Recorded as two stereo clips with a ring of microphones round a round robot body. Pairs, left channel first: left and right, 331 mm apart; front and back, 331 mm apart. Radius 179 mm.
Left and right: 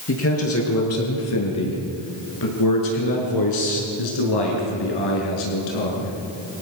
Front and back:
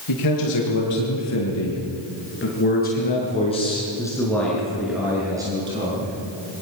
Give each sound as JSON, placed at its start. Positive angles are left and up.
{"t": 0.1, "sound": "a man speaking", "azimuth_deg": 40, "distance_m": 7.5}